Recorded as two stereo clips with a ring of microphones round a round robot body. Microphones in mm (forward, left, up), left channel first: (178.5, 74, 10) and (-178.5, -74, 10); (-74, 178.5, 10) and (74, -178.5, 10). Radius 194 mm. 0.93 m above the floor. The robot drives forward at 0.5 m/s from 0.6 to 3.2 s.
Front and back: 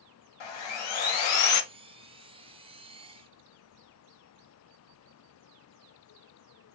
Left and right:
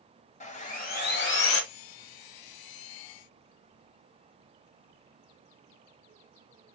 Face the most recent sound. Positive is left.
turn(degrees=115)